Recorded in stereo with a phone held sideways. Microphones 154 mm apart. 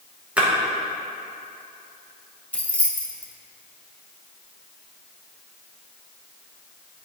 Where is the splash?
10° right (ahead or behind), 1.1 m.